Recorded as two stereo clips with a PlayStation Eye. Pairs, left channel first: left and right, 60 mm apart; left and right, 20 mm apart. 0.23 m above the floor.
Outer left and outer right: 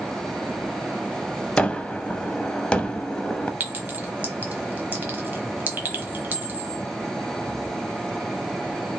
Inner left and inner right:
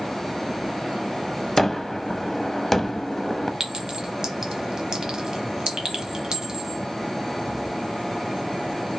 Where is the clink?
30° right (ahead or behind), 1.1 m.